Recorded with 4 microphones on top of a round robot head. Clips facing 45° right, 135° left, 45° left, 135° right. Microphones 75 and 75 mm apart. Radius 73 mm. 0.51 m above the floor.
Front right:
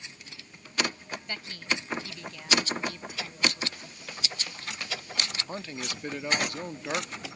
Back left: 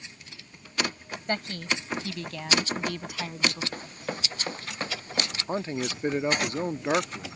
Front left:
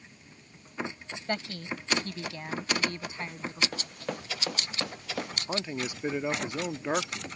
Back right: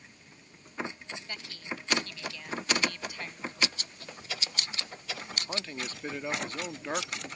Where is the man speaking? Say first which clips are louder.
Back left 7 dB, front left 4 dB; 110° left.